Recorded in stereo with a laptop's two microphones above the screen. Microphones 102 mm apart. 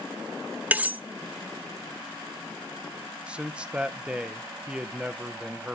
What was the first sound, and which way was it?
Cutlery clinking, 15° right (ahead or behind).